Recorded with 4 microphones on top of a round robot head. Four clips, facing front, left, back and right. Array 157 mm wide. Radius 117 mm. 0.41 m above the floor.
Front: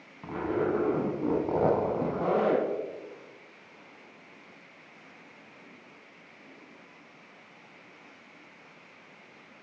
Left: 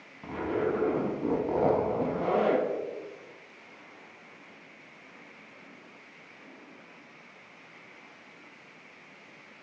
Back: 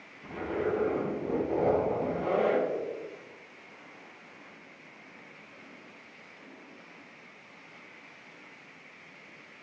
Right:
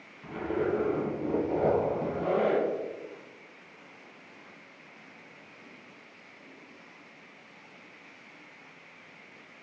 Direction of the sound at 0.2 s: 30° left.